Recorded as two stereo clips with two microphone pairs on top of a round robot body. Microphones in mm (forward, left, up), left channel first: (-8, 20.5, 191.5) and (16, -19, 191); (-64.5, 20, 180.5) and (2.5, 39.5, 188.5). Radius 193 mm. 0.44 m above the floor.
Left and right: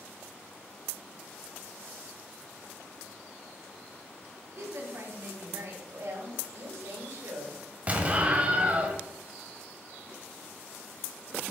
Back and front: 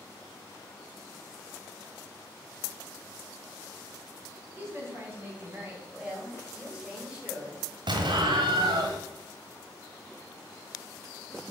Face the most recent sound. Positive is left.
turn(degrees=0)